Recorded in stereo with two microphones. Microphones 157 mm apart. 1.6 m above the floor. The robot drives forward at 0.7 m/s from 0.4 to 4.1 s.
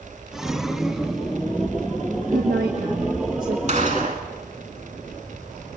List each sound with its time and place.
2.3 s a woman speaking: 70° right (ahead or behind), 1.5 m; by 3.6 s 65° right (ahead or behind), 1.6 m
3.7 s a gunshot: 50° right (ahead or behind), 2 m; by 4.2 s 55° right (ahead or behind), 1.9 m